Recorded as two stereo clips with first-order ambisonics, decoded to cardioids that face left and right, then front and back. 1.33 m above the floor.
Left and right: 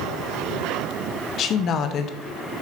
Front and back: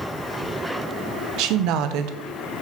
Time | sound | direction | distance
1.4 | a woman speaking | 145° left | 0.7 m